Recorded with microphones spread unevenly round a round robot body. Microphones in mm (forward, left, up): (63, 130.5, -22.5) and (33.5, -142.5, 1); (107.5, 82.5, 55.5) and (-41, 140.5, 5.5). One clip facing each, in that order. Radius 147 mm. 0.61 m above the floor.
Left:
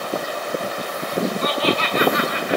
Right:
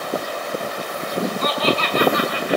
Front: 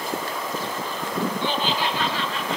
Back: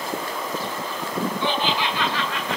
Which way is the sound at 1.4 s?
150° right.